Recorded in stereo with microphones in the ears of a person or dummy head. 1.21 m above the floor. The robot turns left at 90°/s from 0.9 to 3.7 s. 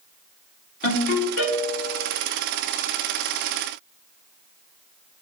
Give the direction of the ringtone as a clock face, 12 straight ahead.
7 o'clock.